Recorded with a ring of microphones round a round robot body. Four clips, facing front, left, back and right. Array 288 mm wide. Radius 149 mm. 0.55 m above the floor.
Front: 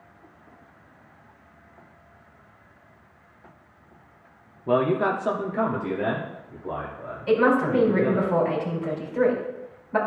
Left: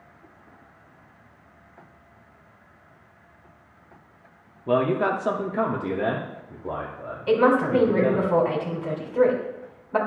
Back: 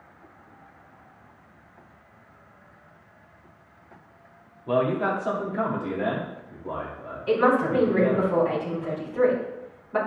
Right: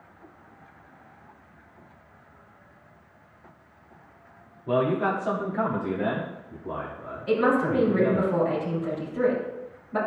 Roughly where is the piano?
I don't hear a piano.